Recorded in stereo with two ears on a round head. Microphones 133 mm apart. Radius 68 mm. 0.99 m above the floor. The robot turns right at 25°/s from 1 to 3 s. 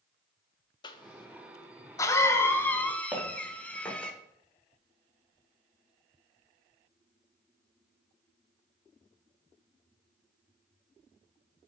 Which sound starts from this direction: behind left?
A cough, at 0.8 s.